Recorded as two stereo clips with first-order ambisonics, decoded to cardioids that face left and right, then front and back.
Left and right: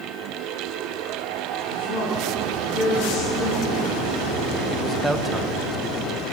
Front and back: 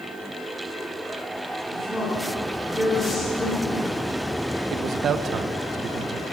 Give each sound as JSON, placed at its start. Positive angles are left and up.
{"t": 1.7, "sound": "a woman speaking", "azimuth_deg": 70, "distance_m": 8.0}
{"t": 4.7, "sound": "a man speaking", "azimuth_deg": -165, "distance_m": 0.8}